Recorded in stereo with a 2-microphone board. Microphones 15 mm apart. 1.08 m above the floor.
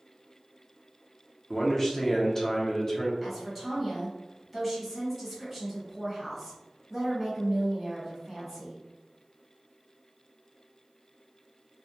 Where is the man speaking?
20° left (ahead or behind), 0.7 m.